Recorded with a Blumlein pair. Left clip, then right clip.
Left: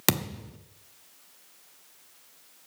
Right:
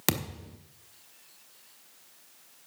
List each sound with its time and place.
0.1 s a thud: 10° left, 1.1 m